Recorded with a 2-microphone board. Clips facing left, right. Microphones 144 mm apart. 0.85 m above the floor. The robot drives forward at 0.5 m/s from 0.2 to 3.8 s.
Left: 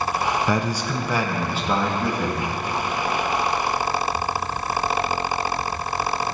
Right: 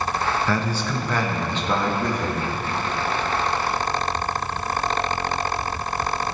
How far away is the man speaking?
About 0.6 m.